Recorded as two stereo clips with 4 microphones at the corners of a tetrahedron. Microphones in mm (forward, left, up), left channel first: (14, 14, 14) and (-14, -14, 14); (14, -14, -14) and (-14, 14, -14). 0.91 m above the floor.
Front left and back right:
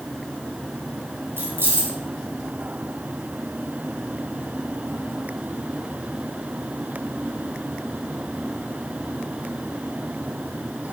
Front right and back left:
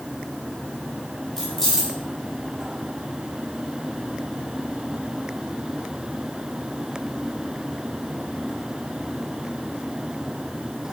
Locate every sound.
1.4 s keys jangling: 125° right, 4.5 m